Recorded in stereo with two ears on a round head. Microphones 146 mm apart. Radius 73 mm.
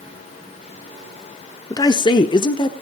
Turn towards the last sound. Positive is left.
turn(degrees=30)  # may be behind; listen again after turning